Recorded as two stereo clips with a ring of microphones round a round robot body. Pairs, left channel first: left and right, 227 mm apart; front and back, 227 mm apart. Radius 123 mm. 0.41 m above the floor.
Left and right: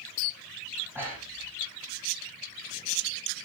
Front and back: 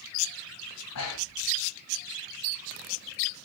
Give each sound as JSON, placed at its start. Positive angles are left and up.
{"t": 0.9, "sound": "breathing", "azimuth_deg": -10, "distance_m": 8.0}